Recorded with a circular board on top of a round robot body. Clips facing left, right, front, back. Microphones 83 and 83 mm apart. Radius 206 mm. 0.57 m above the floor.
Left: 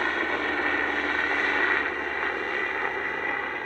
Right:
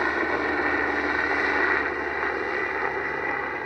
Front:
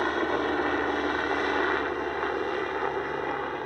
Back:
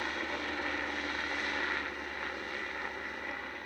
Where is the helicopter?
15° right.